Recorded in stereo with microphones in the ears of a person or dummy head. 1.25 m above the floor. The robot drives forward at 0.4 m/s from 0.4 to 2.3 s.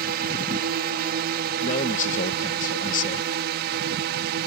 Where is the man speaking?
40° left (ahead or behind); by 3.3 s 45° left (ahead or behind).